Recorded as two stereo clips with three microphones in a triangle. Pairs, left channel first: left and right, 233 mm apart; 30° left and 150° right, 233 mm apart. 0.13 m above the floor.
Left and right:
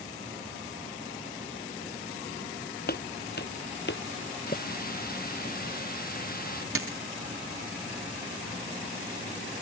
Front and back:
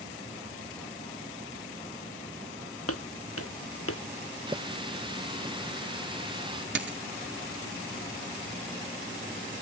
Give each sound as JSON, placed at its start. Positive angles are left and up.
{"t": 2.9, "sound": "footsteps", "azimuth_deg": 45}
{"t": 4.5, "sound": "a running tap", "azimuth_deg": 140}
{"t": 6.8, "sound": "a dropped coin", "azimuth_deg": -110}